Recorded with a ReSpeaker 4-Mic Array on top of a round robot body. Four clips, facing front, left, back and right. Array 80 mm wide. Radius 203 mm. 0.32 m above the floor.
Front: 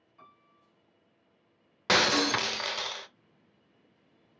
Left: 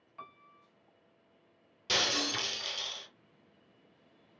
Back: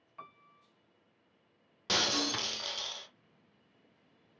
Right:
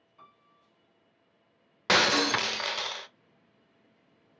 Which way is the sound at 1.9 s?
45° right.